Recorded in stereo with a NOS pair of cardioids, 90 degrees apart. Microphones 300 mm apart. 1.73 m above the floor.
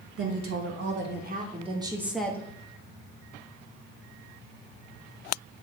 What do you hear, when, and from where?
0.2 s a woman speaking: 50° right, 2.5 m; by 2.5 s 10° left, 1.5 m